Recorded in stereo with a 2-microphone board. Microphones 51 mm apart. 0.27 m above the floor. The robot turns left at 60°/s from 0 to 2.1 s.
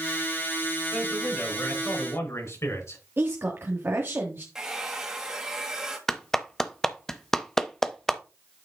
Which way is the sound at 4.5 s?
15° right (ahead or behind).